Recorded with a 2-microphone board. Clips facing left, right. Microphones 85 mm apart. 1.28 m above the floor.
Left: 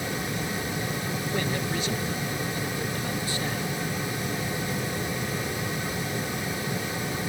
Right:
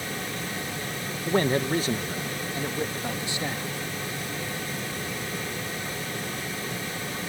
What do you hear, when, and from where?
1.2 s a man speaking: 45° right (ahead or behind); by 3.7 s 20° right (ahead or behind)